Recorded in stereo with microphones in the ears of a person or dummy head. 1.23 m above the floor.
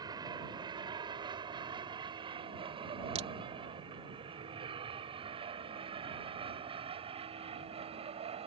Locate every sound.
0.0 s an aircraft: 20° right (ahead or behind); by 8.5 s 35° right (ahead or behind)
3.1 s a crack: 35° right (ahead or behind)